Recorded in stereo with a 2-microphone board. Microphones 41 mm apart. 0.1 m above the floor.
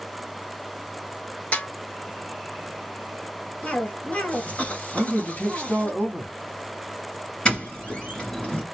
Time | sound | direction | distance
1.5 | a snare drum | 35° left (ahead or behind) | 1.2 m
3.6 | a cough | 40° left (ahead or behind) | 1.3 m
4.9 | a man speaking | 35° left (ahead or behind) | 2.5 m
7.5 | a doorbell | 25° left (ahead or behind) | 2.0 m